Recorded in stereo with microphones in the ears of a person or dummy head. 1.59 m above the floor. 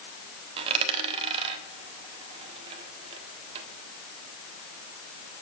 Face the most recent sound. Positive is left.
turn(degrees=-35)  # may be behind; listen again after turning